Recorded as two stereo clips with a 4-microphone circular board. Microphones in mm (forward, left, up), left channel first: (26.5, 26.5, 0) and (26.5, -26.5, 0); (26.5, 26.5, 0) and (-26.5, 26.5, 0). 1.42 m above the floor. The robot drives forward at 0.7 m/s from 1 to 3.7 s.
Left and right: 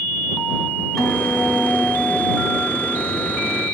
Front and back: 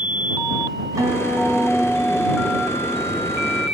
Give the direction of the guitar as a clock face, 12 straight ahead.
6 o'clock.